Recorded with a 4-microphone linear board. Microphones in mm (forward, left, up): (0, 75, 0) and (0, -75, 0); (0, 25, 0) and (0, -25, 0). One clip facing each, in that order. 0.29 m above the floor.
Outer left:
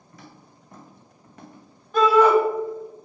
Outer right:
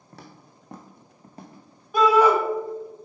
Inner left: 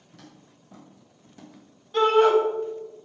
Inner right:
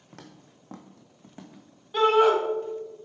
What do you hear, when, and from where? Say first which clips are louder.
0.1 s footsteps: outer right 1 dB, inner right 2 dB; 70° right (ahead or behind), 1.2 m; by 1.7 s 25° right (ahead or behind), 1.6 m
1.9 s a shout: outer left 1 dB, inner left 1 dB; 10° right (ahead or behind), 1.6 m